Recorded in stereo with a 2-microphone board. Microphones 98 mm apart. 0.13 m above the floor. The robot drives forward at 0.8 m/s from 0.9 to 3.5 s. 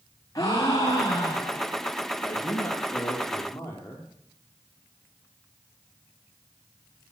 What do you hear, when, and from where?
0.3 s a gasp: 40° left (ahead or behind), 4.5 m; by 1.7 s 35° left (ahead or behind), 5 m
2.2 s a man speaking: 30° left (ahead or behind), 3.5 m; by 4.1 s 25° left (ahead or behind), 4.5 m